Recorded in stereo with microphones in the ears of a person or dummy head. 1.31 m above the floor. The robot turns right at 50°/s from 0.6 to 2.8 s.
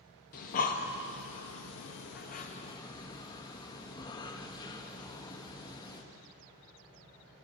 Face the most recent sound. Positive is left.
turn(degrees=25)  # may be behind; listen again after turning